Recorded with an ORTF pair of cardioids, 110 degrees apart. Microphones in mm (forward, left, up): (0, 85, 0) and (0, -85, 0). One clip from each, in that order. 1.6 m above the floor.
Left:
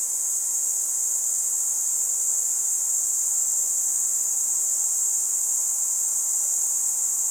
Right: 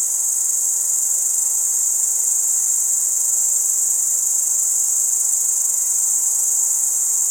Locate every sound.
0.0 s an insect: 55° right, 0.8 m